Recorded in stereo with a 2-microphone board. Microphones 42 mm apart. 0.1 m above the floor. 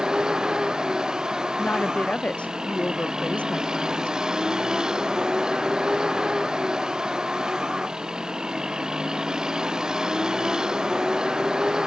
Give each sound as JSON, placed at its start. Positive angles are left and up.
{"t": 0.0, "sound": "a vehicle", "side_deg": -15}
{"t": 1.6, "sound": "a woman speaking", "side_deg": 30}